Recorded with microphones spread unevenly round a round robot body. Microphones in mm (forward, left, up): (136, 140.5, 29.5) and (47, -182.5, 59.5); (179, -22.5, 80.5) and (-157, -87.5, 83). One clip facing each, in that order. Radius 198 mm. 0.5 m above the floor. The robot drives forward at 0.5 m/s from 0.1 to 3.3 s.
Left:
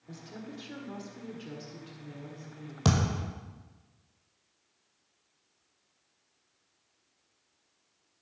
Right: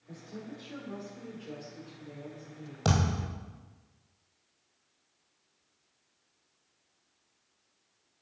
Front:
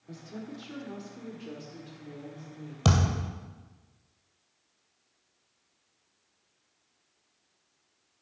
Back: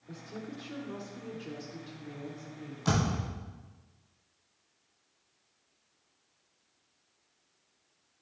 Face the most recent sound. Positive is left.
turn(degrees=15)